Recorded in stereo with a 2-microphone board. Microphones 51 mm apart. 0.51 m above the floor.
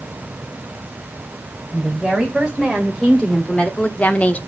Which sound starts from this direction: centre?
A woman speaking, at 1.7 s.